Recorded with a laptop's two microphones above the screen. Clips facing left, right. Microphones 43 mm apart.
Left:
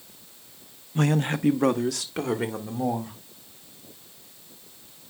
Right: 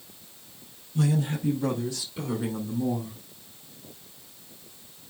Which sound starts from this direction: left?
A man speaking, at 0.9 s.